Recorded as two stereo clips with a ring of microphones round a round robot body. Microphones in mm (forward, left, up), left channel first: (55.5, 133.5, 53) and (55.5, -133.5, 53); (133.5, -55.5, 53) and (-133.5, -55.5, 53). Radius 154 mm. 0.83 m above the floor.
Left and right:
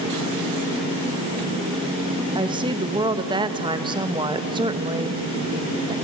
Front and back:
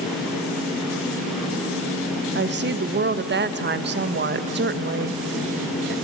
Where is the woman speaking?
155° right, 1.1 m.